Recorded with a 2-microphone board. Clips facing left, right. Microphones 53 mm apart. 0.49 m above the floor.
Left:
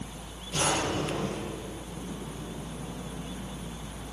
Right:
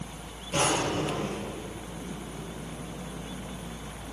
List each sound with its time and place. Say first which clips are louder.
0.5 s a drawer: right 2 dB; 50° right (ahead or behind), 7 m